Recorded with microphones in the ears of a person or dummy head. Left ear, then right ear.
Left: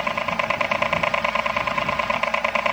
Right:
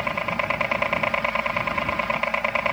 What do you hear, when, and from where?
0.0 s a helicopter: 10° left (ahead or behind)